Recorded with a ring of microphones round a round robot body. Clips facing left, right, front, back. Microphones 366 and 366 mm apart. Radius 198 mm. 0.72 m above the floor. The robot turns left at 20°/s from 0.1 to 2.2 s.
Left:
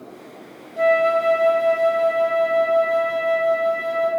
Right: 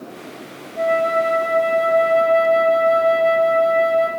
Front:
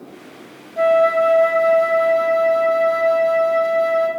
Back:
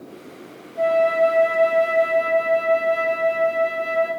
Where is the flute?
15° left, 0.9 m; by 4.1 s 15° right, 0.9 m.